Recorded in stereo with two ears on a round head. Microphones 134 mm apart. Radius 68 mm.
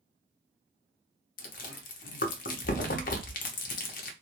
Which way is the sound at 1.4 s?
55° left (ahead or behind).